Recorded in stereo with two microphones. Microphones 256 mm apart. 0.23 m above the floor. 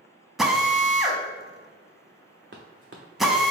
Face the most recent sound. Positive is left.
turn(degrees=-45)  # may be behind; listen again after turning